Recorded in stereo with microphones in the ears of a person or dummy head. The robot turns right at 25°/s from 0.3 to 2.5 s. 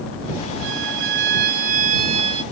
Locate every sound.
0.6 s a violin: 70° right; by 2.4 s 25° right